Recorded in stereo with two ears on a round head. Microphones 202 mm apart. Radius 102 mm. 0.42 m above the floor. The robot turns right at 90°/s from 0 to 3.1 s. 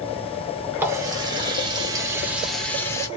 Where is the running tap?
10° right (ahead or behind), 0.7 m; by 3.1 s 15° left (ahead or behind), 0.7 m.